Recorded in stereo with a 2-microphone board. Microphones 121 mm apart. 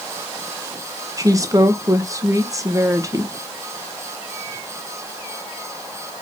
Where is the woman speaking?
25° right (ahead or behind), 1.3 m.